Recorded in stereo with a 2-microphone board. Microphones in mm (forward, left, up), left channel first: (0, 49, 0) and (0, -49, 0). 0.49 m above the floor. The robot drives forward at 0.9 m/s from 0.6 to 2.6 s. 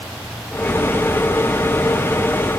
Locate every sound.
Only background noise.